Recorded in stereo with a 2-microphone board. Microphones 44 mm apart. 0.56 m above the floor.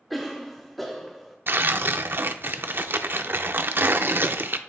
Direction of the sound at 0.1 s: Centre (ahead or behind).